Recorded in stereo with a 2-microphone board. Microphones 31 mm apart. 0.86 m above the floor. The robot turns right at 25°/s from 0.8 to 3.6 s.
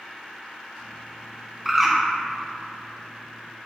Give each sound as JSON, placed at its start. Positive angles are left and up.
{"t": 1.6, "sound": "a bird", "side_deg": -5, "distance_m": 0.6}